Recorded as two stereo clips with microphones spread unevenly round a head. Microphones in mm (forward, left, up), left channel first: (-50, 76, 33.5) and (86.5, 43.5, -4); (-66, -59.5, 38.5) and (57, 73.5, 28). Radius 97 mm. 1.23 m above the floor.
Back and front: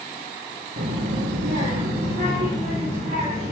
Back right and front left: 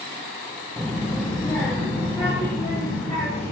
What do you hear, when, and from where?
0.8 s a child speaking: 50° right, 0.8 m; by 3.5 s 70° right, 2.5 m